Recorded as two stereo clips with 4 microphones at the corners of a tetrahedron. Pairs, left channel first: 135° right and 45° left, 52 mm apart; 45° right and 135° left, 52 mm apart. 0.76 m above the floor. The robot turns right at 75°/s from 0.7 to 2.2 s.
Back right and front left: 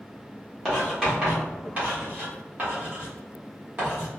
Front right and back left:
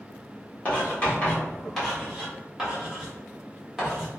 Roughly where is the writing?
Ahead right.